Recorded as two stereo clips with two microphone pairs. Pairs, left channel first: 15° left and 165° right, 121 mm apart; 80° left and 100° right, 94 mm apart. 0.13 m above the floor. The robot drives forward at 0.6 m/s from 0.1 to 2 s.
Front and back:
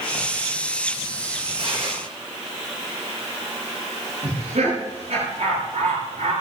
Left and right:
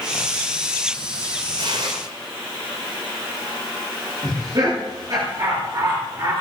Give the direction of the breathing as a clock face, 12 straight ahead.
I don't hear breathing.